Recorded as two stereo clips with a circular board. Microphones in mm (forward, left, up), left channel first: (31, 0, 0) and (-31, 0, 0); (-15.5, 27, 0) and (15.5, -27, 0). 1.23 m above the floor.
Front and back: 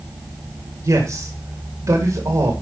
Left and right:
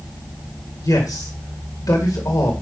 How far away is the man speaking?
About 2 m.